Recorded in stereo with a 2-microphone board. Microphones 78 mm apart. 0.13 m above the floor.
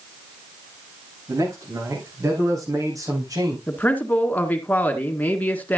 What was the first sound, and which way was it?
A man speaking, 40° right (ahead or behind).